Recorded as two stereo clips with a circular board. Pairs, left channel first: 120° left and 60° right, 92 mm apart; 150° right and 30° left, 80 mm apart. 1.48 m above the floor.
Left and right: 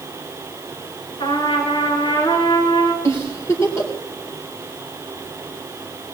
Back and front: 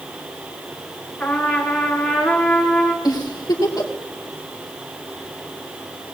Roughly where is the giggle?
Behind.